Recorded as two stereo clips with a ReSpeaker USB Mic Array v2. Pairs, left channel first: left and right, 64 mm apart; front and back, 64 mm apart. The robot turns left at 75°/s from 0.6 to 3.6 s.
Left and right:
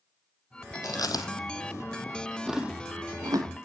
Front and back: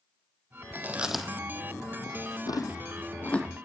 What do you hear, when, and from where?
0.8 s chewing: 125° left, 0.9 m; by 3.5 s 80° right, 0.9 m